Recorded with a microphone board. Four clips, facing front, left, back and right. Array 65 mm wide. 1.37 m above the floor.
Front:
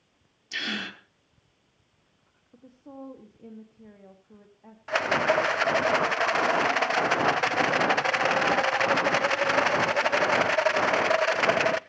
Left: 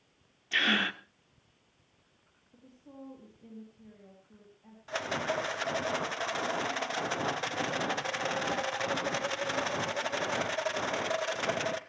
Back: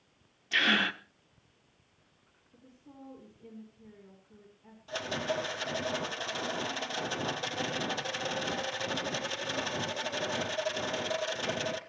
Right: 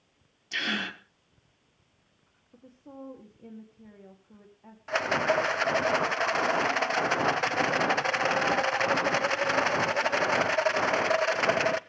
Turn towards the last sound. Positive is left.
turn(degrees=-25)